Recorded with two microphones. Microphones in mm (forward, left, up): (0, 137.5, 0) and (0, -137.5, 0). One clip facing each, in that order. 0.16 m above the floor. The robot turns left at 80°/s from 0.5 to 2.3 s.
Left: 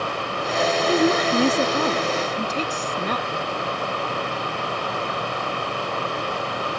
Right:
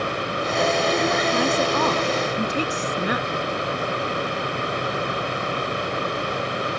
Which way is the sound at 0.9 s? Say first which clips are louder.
Left 3 dB; 95° left.